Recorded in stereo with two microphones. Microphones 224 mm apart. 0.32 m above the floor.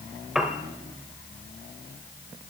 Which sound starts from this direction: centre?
A piano, at 0.3 s.